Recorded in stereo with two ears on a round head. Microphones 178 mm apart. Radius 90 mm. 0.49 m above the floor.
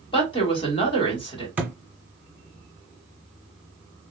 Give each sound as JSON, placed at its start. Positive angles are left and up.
{"t": 0.1, "sound": "a woman speaking", "side_deg": 25, "distance_m": 1.2}
{"t": 1.6, "sound": "a thud", "side_deg": -5, "distance_m": 0.8}